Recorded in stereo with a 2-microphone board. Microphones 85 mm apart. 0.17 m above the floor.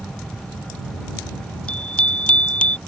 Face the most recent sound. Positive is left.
turn(degrees=15)  # may be behind; listen again after turning